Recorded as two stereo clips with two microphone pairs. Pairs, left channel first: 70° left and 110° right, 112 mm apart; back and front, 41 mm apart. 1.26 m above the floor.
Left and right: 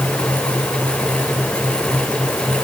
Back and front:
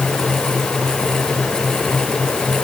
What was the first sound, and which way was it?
Only background noise.